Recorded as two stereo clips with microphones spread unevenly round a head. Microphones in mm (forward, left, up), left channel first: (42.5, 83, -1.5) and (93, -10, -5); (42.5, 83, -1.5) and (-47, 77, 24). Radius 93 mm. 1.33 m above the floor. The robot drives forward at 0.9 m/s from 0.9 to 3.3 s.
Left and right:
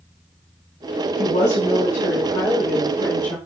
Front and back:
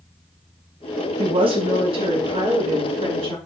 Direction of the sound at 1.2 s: 165° left.